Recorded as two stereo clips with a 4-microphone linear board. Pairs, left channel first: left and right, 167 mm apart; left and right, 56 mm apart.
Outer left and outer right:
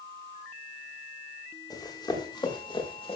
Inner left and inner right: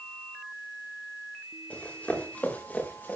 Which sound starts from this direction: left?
Running footsteps, at 1.7 s.